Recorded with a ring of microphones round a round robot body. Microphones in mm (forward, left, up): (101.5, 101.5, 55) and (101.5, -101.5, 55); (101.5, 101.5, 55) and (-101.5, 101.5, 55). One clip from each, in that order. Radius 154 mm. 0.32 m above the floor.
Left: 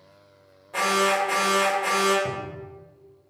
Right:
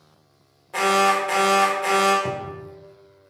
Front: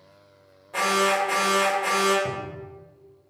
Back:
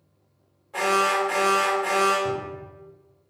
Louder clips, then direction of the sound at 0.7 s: Right 3 dB, even; 60° right.